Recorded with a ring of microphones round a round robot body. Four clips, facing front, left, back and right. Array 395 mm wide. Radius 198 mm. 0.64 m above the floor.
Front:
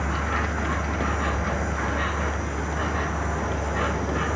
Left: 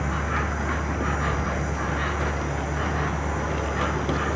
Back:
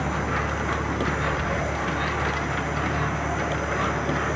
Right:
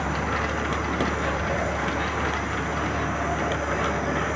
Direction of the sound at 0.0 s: 20° left.